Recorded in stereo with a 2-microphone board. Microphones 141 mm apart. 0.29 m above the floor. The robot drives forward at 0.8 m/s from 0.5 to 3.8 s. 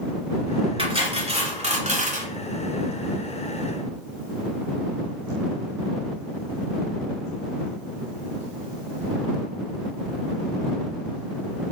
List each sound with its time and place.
0.8 s cutlery clinking: 40° right (ahead or behind), 2.5 m; by 2.3 s 60° right (ahead or behind), 2 m